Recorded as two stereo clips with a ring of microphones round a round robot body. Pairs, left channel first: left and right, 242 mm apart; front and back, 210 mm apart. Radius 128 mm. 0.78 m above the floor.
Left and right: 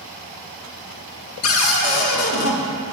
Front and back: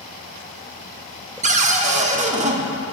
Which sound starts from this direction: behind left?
A cupboard door, at 1.4 s.